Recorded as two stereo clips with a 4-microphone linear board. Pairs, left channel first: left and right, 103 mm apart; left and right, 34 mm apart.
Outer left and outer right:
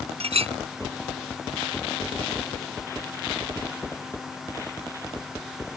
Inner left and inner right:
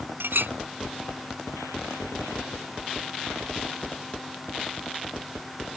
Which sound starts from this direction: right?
A clink, at 0.2 s.